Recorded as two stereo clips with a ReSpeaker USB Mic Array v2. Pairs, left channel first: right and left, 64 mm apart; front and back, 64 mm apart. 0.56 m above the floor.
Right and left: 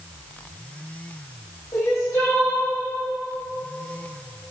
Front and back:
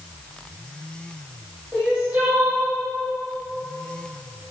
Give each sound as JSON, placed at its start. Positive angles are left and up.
{"t": 1.7, "sound": "crying", "azimuth_deg": -115, "distance_m": 3.0}